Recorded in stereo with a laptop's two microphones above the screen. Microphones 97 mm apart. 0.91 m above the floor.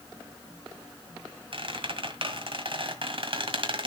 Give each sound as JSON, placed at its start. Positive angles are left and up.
{"t": 1.5, "sound": "a squeak", "side_deg": -60, "distance_m": 1.6}